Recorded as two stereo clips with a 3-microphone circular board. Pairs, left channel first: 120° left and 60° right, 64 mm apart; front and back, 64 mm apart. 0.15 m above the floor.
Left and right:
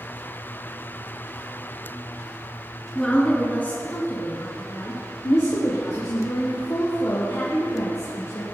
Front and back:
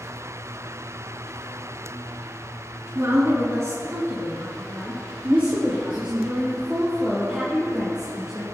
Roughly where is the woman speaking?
Behind.